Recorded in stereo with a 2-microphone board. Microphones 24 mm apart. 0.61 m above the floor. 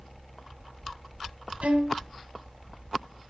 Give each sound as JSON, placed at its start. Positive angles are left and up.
{"t": 1.6, "sound": "a violin", "side_deg": -75, "distance_m": 2.0}